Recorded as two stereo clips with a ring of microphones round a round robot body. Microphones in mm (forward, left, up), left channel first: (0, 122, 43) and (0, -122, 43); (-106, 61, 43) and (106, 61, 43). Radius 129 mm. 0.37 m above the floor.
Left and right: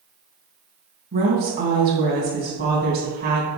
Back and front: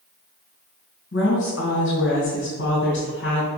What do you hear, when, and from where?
1.1 s a woman speaking: 140° right, 2.5 m